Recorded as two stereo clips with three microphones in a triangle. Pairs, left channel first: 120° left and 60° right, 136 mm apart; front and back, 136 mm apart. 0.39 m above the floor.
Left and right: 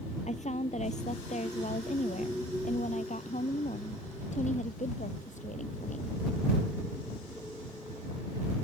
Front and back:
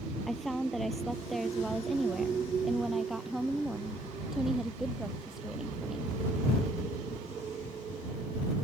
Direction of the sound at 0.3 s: 90° left.